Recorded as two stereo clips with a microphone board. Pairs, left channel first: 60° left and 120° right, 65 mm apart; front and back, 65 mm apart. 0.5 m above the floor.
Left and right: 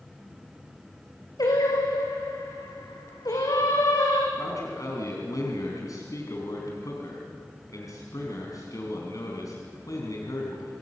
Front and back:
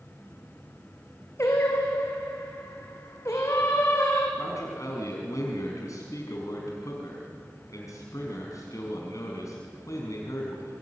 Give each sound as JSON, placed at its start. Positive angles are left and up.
{"t": 1.4, "sound": "singing", "azimuth_deg": 50, "distance_m": 5.0}
{"t": 4.4, "sound": "a man speaking", "azimuth_deg": 35, "distance_m": 4.5}